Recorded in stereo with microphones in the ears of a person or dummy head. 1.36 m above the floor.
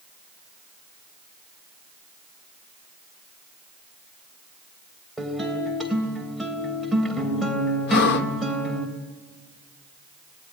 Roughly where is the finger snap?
No finger snap in this recording.